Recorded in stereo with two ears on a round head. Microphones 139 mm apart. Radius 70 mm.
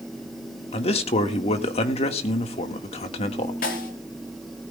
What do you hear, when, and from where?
0.7 s a man speaking: 40° left (ahead or behind), 1.6 m
3.6 s a snare drum: 60° left (ahead or behind), 2.5 m